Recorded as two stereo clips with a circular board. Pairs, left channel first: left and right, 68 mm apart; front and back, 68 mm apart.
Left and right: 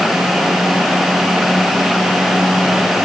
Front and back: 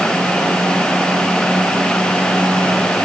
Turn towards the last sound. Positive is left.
No sound to turn to.